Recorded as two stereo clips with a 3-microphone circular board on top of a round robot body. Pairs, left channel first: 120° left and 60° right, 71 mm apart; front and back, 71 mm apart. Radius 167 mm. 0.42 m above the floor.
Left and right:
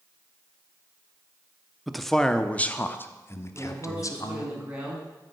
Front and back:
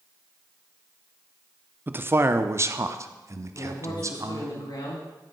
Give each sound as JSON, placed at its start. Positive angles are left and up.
{"t": 1.9, "sound": "a man speaking", "azimuth_deg": -145, "distance_m": 1.2}
{"t": 3.5, "sound": "a man speaking", "azimuth_deg": 15, "distance_m": 7.0}